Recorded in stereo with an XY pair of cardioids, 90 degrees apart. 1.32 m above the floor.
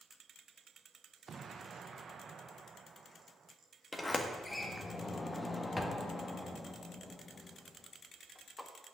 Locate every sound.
1.3 s an explosion: 45° right, 0.7 m
3.9 s a sliding door: 20° left, 1.4 m